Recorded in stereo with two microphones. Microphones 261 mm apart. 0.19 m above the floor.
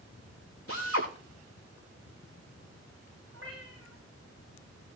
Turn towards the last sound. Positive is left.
turn(degrees=-55)  # may be behind; listen again after turning